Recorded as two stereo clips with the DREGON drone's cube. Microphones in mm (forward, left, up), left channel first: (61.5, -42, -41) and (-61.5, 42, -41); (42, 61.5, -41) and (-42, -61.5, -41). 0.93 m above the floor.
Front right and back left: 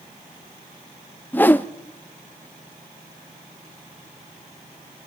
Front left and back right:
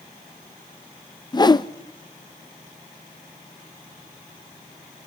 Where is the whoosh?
30° left, 0.7 m.